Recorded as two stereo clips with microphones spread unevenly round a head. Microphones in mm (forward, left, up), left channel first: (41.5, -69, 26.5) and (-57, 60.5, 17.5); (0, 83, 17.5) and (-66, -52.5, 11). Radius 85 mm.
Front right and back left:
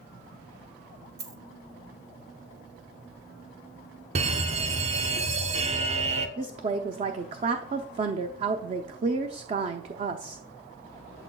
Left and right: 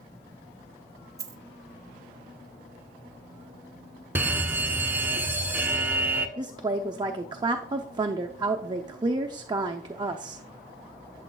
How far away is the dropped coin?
About 0.9 m.